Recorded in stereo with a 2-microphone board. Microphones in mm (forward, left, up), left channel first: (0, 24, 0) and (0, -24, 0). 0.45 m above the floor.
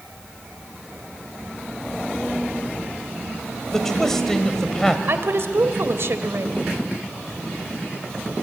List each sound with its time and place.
3.7 s a man speaking: 10° left (ahead or behind), 1.8 m
5.1 s a woman speaking: 60° right (ahead or behind), 1.4 m